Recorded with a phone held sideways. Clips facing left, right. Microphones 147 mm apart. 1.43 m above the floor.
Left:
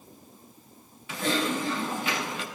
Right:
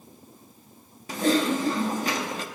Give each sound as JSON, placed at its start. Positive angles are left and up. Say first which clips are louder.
{"t": 1.1, "sound": "typing on a keyboard", "louder": "right 5 dB", "side_deg": -45, "distance_m": 1.5}